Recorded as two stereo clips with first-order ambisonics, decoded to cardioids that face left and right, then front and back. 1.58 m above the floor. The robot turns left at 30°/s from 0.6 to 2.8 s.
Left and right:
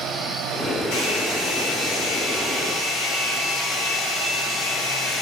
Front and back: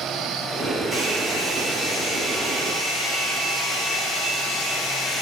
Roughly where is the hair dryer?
Left.